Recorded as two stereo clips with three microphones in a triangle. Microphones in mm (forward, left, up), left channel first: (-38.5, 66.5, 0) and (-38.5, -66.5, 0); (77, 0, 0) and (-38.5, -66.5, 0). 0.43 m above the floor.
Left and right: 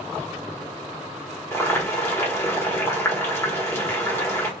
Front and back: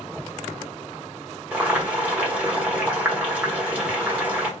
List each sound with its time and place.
1.5 s boiling: 140° left, 1.1 m